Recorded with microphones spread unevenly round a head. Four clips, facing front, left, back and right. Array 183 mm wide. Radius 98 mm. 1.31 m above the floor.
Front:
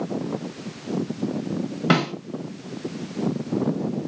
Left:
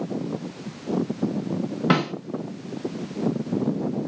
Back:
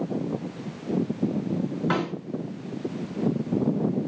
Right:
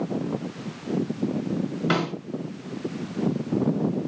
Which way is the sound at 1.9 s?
30° left.